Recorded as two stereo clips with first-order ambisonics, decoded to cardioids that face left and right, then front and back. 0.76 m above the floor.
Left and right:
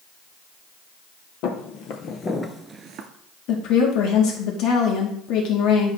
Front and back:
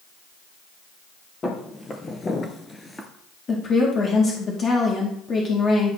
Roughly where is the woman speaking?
Ahead left.